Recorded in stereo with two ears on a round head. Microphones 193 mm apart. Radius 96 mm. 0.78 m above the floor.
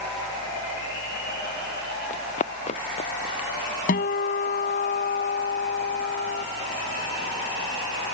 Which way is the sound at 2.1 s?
35° left (ahead or behind).